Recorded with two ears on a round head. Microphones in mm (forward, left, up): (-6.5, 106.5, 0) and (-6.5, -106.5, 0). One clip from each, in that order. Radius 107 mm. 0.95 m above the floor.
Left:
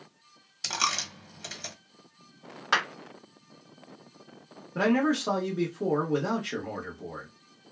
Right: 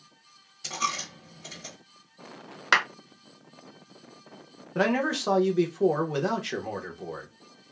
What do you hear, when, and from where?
0.6 s a dropped coin: 50° left (ahead or behind), 0.9 m
2.7 s a clap: 45° right (ahead or behind), 1.2 m
4.8 s a man speaking: 30° right (ahead or behind), 0.9 m